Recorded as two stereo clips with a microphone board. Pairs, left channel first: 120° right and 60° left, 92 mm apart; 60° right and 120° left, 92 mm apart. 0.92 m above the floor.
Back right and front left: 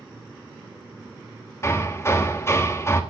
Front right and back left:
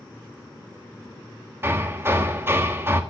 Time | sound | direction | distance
1.6 | hammering | straight behind | 1.5 m